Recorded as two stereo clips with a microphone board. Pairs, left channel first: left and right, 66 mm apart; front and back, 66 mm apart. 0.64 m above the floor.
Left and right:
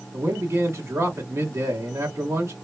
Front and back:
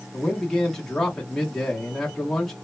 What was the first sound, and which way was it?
A man speaking, 80° right.